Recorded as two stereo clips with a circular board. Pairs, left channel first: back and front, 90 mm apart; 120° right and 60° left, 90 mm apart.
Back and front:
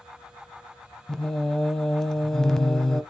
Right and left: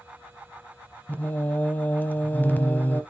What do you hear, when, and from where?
1.1 s singing: 110° right, 0.8 m